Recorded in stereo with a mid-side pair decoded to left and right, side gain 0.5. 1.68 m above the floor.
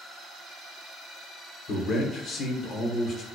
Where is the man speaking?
55° left, 0.8 m.